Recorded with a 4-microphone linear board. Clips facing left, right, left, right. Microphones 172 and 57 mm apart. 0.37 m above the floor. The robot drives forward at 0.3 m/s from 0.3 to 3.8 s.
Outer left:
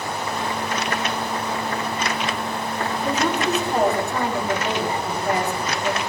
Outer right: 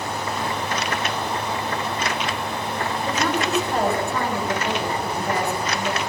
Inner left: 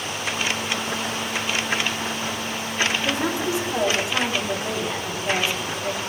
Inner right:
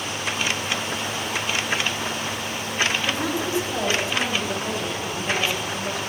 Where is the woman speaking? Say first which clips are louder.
Outer left 2 dB, inner left 1 dB; 20° left (ahead or behind), 6.5 m.